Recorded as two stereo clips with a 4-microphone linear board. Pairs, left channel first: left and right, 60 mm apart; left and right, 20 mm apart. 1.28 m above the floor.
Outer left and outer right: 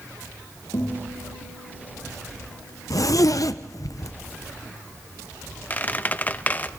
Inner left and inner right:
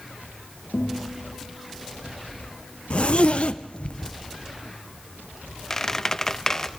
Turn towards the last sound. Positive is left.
turn(degrees=30)  # may be behind; listen again after turning